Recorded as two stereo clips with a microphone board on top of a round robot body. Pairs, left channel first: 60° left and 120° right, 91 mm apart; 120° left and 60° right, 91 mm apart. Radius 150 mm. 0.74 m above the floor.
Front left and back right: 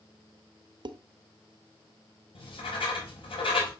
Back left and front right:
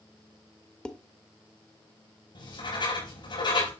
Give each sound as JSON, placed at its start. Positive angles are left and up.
{"t": 0.8, "sound": "dishes clattering", "azimuth_deg": -160, "distance_m": 0.8}
{"t": 2.4, "sound": "writing", "azimuth_deg": 85, "distance_m": 4.5}